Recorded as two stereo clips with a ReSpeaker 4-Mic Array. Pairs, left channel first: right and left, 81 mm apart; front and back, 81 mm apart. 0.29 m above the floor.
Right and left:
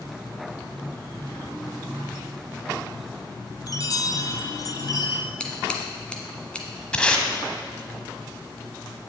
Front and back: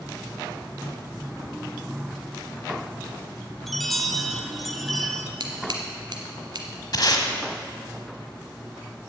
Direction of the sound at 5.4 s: 165° right.